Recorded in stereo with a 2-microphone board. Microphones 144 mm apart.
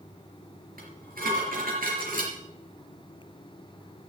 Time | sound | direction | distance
0.8 | dishes clattering | 80° right | 3.5 m